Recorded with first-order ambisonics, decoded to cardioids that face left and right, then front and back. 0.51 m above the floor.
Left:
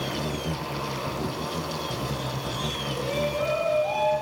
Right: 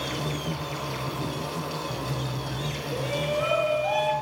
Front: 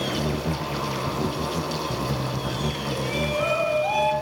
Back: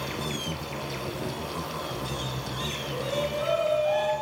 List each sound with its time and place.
0.0 s an insect: 10° left, 3 m
2.9 s a shout: 5° right, 6 m